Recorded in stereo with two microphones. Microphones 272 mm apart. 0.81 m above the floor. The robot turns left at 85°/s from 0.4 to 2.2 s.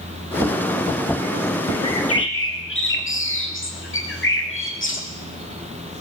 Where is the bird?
80° left, 1.7 m; by 5.0 s 50° left, 1.7 m.